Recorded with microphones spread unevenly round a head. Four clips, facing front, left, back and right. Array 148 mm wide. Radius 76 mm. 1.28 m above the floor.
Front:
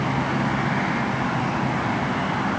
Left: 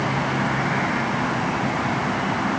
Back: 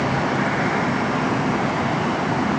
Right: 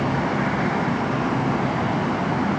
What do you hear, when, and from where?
Only background noise.